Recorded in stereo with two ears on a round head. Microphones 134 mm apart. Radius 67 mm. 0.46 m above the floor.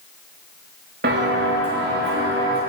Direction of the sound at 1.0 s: 65° right (ahead or behind).